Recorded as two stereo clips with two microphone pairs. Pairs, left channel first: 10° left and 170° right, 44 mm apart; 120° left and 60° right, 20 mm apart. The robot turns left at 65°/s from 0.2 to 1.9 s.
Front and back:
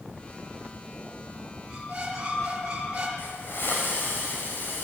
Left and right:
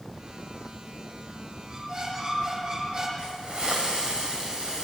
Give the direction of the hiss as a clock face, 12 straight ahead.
1 o'clock.